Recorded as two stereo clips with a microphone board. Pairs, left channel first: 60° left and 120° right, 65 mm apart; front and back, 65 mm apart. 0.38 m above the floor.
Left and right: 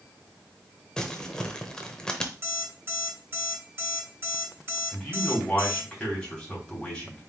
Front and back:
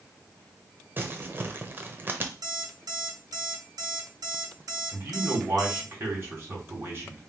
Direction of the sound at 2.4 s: 175° right.